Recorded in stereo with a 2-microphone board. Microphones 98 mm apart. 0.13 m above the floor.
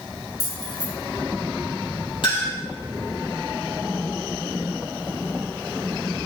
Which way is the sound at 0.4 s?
40° right (ahead or behind).